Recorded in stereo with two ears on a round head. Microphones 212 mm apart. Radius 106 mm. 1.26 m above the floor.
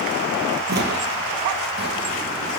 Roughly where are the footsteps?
Right.